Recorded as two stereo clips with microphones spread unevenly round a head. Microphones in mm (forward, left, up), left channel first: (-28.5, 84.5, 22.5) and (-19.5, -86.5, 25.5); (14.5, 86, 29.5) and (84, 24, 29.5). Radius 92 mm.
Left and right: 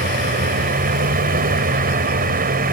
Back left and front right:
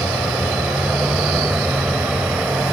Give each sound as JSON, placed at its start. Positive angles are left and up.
{"t": 0.0, "sound": "a vehicle", "azimuth_deg": -125}